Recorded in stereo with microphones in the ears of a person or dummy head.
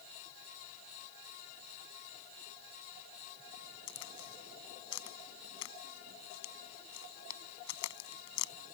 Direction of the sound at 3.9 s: 85° left.